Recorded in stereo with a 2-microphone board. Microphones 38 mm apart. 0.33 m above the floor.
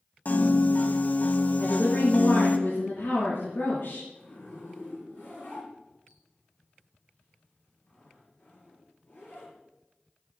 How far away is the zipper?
About 7.5 m.